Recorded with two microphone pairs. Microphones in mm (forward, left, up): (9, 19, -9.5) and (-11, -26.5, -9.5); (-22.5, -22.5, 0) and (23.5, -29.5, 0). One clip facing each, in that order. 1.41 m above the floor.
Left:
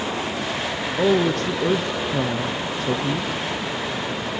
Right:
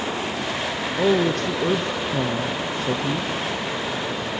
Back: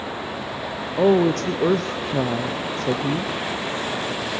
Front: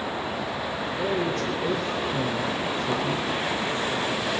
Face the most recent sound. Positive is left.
turn(degrees=155)